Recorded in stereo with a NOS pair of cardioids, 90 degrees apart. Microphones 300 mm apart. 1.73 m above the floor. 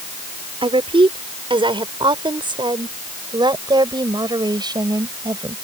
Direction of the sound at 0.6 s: 15° right.